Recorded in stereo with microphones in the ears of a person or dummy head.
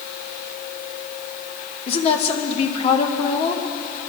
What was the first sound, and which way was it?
A woman speaking, 35° left (ahead or behind).